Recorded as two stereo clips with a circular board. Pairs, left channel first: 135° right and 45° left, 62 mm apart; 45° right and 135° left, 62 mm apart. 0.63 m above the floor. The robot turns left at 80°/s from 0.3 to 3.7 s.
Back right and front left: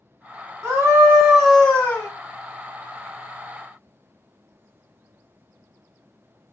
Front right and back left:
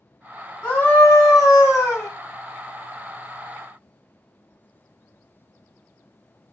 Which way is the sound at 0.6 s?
20° left.